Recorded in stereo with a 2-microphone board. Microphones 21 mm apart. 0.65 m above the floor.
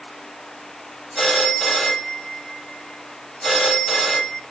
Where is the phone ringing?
20° left (ahead or behind), 2.5 m.